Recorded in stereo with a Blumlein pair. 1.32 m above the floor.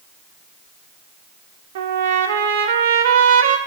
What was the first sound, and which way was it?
A trumpet, 55° right.